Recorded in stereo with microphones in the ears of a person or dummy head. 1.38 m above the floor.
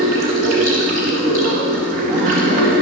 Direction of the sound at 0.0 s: 50° right (ahead or behind).